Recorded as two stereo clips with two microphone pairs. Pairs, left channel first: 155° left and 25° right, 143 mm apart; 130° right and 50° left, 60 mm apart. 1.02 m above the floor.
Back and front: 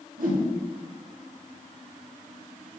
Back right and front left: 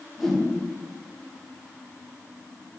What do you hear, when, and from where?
0.2 s a whoosh: 40° right, 2.0 m